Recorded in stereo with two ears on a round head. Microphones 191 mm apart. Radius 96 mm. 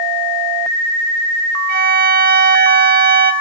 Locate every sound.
1.7 s a violin: 45° right (ahead or behind), 0.8 m